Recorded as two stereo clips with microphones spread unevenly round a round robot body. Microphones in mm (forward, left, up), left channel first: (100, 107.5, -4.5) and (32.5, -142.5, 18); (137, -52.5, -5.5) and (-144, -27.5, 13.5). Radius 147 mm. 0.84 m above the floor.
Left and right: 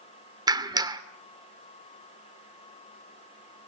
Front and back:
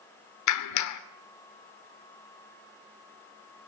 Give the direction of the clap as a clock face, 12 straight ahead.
1 o'clock.